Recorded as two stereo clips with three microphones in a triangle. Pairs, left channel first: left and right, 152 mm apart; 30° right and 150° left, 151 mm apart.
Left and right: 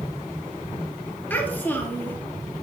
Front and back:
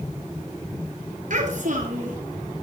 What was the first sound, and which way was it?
A child speaking, 165° left.